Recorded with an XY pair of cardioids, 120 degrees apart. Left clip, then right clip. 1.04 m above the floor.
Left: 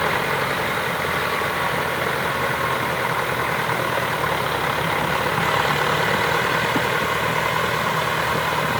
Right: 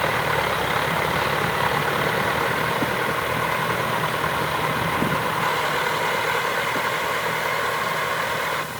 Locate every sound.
Only background noise.